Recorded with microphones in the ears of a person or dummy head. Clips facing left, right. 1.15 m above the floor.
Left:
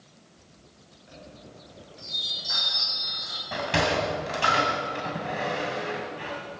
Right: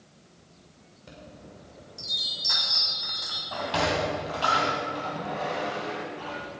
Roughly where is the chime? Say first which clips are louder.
Even; right.